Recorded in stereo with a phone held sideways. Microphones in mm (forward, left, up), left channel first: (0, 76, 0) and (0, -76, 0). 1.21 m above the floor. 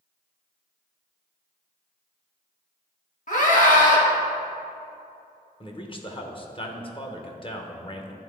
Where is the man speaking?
35° left (ahead or behind), 0.9 m.